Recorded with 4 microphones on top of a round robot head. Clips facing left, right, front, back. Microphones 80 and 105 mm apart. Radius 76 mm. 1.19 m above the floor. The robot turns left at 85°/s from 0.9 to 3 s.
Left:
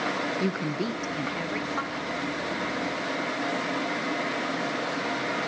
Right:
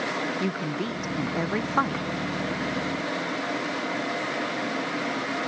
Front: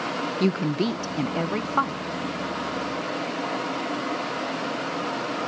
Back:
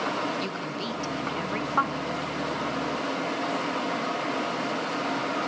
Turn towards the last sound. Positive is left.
turn(degrees=-175)